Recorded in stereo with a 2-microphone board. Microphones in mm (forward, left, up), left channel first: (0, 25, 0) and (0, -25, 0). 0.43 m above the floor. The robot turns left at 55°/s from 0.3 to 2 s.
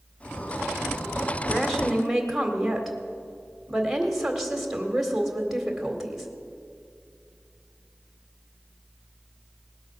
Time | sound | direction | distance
1.4 | a woman speaking | 25° left | 1.8 m